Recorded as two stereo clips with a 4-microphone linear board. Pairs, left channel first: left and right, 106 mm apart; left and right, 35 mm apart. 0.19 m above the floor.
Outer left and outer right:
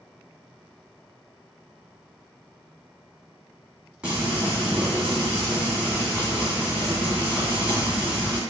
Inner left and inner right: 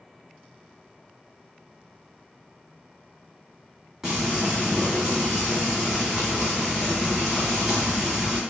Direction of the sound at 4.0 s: 10° right (ahead or behind).